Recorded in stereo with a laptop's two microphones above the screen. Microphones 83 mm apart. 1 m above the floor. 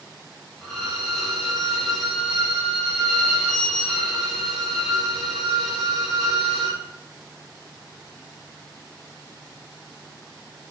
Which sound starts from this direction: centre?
A violin, at 0.6 s.